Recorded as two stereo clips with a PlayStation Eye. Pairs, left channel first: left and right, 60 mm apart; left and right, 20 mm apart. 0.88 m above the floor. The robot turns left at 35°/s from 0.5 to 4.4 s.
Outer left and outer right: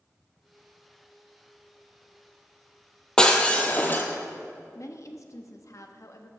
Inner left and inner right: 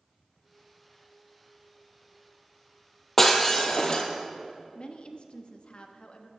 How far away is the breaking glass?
About 1.3 m.